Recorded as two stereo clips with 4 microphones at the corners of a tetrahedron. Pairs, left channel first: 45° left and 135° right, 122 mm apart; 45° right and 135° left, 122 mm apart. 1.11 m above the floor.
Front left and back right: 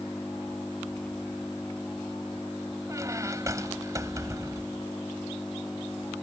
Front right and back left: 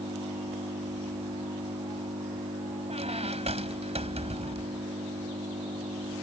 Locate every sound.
0.0 s an engine running: 130° left
2.9 s a squeak: 160° left